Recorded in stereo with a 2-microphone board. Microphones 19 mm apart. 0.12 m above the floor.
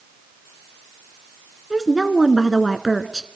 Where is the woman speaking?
10° right (ahead or behind), 1.2 m.